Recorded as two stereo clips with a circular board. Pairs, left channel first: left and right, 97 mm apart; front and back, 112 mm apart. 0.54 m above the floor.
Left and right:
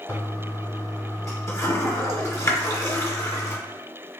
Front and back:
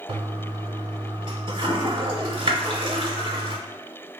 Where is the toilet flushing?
145° left, 0.7 m.